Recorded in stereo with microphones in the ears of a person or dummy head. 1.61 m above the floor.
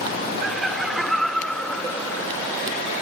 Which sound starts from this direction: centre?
Laughter, at 0.4 s.